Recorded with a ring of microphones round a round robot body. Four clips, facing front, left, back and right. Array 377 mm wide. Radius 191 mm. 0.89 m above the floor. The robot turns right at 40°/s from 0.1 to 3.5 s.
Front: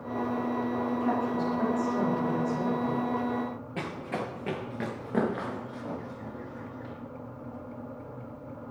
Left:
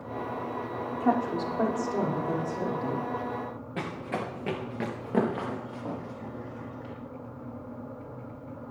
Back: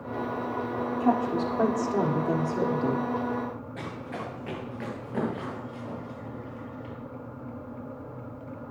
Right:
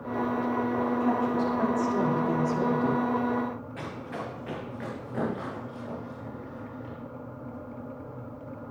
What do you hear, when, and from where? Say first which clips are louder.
1.0 s a woman speaking: left 4 dB, back 6 dB; 130° left, 3 m; by 3.0 s 150° right, 3 m
3.8 s running footsteps: left 3 dB, front 2 dB; 55° left, 3 m; by 6.9 s 80° left, 6 m